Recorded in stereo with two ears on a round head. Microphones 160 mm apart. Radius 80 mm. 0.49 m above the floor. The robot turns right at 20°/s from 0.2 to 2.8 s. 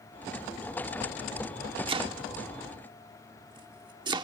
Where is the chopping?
30° right (ahead or behind); by 4.2 s 25° right (ahead or behind).